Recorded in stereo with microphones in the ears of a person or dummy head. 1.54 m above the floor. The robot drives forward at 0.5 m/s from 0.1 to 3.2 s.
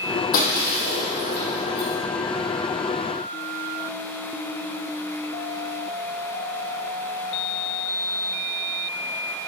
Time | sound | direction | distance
0.3 | breaking glass | 45° left (ahead or behind) | 3 m